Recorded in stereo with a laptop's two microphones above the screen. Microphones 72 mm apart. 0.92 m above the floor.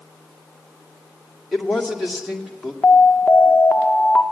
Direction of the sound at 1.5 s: Centre (ahead or behind).